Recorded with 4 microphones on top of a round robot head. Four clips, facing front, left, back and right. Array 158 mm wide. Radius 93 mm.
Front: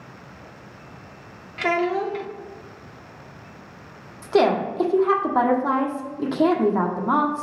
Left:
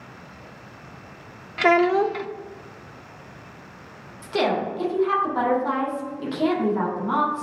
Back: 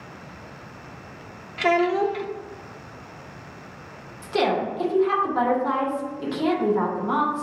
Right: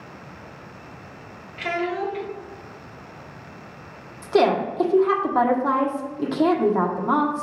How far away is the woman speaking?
About 1.4 m.